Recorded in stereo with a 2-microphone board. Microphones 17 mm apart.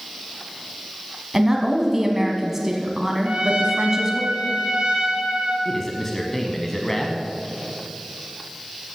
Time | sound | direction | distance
1.3 | a woman speaking | 20° right (ahead or behind) | 1.2 m
3.2 | a trumpet | 70° right (ahead or behind) | 3 m
5.7 | a man speaking | 15° left (ahead or behind) | 1.1 m